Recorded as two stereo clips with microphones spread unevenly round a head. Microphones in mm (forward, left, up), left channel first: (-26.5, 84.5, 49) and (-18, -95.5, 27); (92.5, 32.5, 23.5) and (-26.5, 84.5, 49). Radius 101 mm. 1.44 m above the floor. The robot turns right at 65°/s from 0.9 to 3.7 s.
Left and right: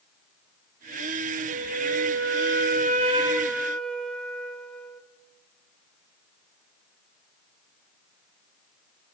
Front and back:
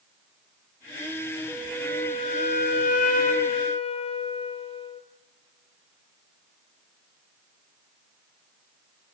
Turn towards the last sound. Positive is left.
turn(degrees=15)